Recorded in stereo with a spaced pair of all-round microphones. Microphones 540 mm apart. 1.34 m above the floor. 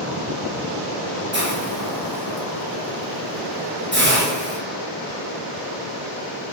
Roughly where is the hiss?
Centre.